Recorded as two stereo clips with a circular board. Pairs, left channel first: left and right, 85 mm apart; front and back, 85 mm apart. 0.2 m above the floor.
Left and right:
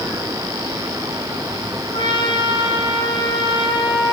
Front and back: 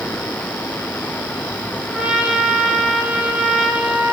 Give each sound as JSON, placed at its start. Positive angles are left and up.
{"t": 1.9, "sound": "a trumpet", "azimuth_deg": 100, "distance_m": 5.0}